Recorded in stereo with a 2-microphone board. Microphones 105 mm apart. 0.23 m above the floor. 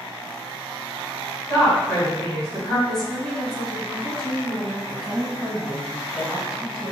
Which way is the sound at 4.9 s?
10° right (ahead or behind).